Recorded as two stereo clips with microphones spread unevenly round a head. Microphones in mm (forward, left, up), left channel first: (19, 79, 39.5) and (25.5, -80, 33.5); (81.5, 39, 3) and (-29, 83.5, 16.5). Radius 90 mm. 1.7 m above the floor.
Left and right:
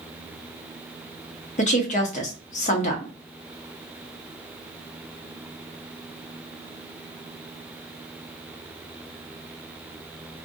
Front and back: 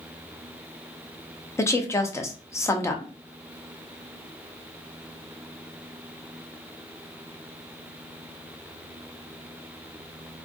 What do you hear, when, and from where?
1.6 s a woman speaking: 45° left, 0.8 m